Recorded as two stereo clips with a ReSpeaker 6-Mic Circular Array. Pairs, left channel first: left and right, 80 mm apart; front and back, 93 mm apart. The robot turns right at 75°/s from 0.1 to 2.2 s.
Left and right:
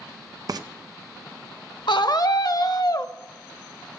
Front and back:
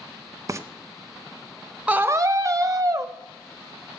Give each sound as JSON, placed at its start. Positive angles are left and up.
{"t": 0.5, "sound": "frying", "azimuth_deg": -125, "distance_m": 0.5}
{"t": 1.9, "sound": "a scream", "azimuth_deg": 105, "distance_m": 0.9}